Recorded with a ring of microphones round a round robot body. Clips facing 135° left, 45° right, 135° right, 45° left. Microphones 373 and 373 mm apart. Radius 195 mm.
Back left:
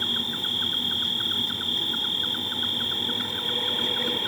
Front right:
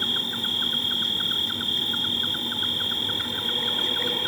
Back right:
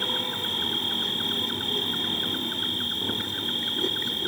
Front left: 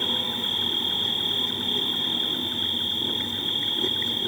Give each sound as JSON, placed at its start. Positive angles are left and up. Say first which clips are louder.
{"t": 0.0, "sound": "an insect", "louder": "front right 1 dB, front left 1 dB", "azimuth_deg": -65}